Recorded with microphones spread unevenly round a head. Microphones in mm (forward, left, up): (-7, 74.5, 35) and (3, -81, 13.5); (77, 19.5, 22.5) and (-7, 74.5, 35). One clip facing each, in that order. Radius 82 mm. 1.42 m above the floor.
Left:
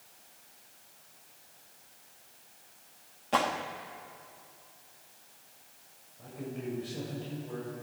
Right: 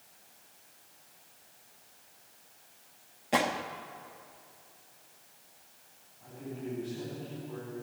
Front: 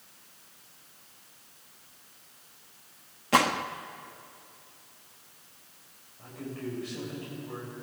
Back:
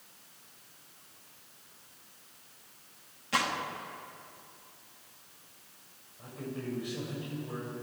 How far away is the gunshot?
About 1.0 m.